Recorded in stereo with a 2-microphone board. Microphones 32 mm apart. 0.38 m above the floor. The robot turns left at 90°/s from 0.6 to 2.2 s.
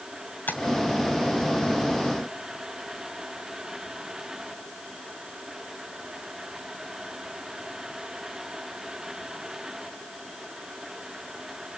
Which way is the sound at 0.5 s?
65° left (ahead or behind).